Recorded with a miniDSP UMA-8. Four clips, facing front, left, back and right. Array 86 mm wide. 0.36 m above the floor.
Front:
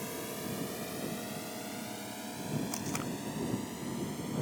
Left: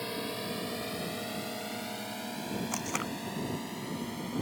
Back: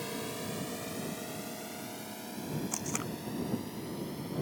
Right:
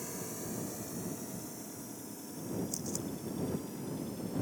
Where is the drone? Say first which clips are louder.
Left 6 dB, back 1 dB; 105° left; by 4.4 s 80° left.